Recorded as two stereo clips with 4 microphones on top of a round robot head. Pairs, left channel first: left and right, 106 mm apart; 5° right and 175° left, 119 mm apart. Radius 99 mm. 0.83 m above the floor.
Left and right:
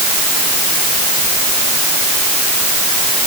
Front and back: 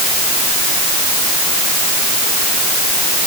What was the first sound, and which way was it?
Only background noise.